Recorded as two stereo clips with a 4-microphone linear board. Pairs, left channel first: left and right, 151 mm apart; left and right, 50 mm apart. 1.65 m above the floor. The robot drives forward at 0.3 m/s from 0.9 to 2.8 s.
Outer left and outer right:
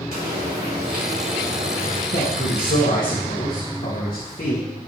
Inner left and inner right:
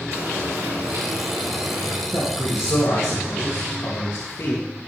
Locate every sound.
0.1 s frying: 80° right, 4 m; by 2.0 s 75° right (ahead or behind), 4.5 m
2.1 s a man speaking: 60° left (ahead or behind), 2.5 m; by 4.6 s 65° left (ahead or behind), 2 m